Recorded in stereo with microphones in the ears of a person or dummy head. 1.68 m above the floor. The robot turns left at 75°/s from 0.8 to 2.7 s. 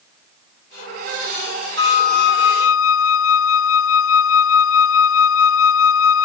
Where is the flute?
155° left; by 6.3 s 90° left.